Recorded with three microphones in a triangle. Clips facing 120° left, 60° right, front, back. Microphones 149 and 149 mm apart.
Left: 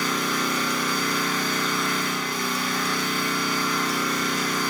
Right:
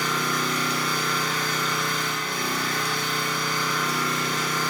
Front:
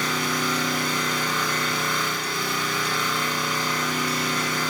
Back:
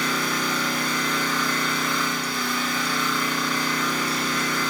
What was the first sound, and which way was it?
An engine running, 65° right.